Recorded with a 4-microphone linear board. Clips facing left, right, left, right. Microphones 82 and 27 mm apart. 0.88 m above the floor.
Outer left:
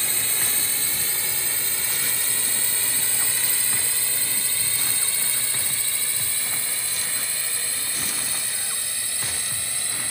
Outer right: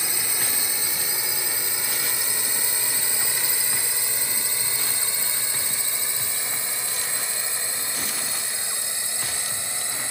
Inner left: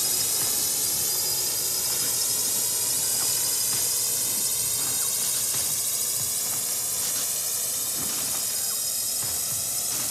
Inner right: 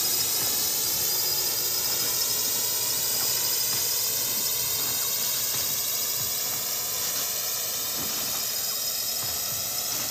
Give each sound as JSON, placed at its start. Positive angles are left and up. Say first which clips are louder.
{"t": 0.0, "sound": "a drone", "louder": "outer right 1 dB, even", "side_deg": -15}